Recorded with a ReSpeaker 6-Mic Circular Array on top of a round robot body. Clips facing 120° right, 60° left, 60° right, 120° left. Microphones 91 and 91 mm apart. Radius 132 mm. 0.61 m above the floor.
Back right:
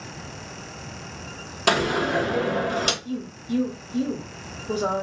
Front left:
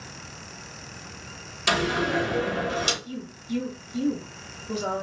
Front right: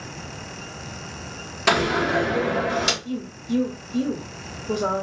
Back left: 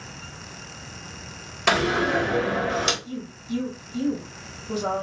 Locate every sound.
1.7 s a door slam: 145° right, 1.4 m
3.0 s a woman speaking: 80° right, 1.1 m